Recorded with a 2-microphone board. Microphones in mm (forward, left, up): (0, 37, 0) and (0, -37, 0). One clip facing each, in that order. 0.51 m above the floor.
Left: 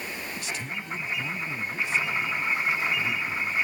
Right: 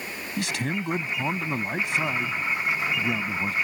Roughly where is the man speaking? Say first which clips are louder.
Right 6 dB; right.